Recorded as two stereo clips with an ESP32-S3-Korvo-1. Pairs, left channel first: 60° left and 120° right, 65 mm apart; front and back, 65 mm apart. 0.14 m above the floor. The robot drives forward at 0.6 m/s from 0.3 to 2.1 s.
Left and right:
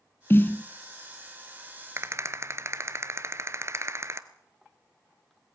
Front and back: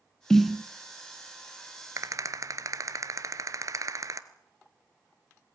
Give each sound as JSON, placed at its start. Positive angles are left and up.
{"t": 0.3, "sound": "a snare drum", "azimuth_deg": 75, "distance_m": 0.6}
{"t": 2.0, "sound": "a rattle", "azimuth_deg": -160, "distance_m": 1.2}